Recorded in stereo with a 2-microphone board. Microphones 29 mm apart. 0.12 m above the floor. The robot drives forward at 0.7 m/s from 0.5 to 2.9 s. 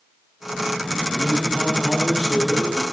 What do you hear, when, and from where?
1.1 s a man speaking: 20° right (ahead or behind), 3.5 m; by 2.8 s 15° right (ahead or behind), 4.5 m